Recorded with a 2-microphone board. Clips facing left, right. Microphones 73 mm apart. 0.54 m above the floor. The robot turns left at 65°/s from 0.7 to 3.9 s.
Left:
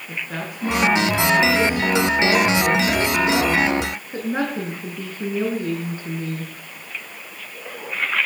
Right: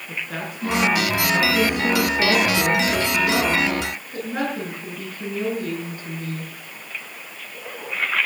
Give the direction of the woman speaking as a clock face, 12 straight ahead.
12 o'clock.